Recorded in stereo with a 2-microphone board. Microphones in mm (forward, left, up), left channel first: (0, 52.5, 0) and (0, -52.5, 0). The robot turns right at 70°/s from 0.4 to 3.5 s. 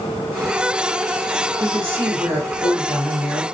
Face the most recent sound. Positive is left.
turn(degrees=0)